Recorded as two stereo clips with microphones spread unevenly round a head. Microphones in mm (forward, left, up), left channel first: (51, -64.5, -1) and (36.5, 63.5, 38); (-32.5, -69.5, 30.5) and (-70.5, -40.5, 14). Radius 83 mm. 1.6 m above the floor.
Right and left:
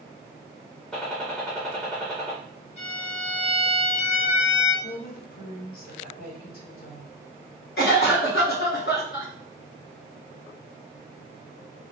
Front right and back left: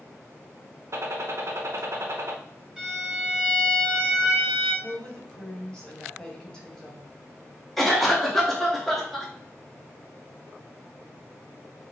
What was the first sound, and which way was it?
A gunshot, straight behind.